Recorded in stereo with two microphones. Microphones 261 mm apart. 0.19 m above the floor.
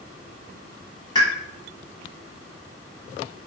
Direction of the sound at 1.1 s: 15° left (ahead or behind).